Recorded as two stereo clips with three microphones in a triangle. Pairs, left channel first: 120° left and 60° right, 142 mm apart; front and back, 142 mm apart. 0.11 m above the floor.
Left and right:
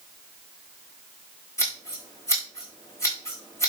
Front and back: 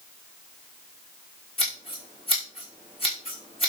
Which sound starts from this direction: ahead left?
Scissors, at 1.6 s.